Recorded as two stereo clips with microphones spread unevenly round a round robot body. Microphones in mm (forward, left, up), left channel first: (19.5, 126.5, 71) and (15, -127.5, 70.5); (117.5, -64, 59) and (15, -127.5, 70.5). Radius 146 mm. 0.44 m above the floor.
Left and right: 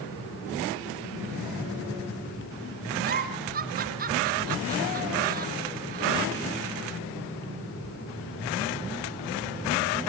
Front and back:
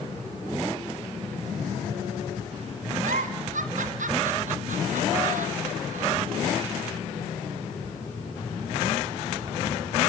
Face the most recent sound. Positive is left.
turn(degrees=-150)